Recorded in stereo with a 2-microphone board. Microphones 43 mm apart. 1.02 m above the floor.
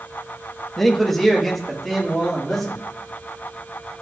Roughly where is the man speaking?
Centre.